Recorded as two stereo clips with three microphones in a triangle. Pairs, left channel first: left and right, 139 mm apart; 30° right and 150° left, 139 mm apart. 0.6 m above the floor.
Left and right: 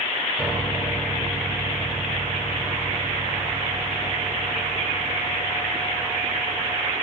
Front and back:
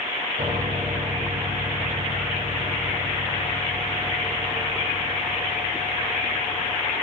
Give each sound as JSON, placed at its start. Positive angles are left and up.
{"t": 0.4, "sound": "a piano", "azimuth_deg": 180, "distance_m": 1.8}